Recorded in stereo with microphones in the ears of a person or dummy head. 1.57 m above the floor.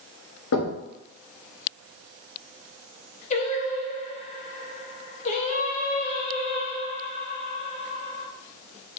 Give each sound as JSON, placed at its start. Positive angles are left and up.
{"t": 0.5, "sound": "knocking", "side_deg": 75, "distance_m": 2.0}
{"t": 3.3, "sound": "singing", "side_deg": 35, "distance_m": 0.9}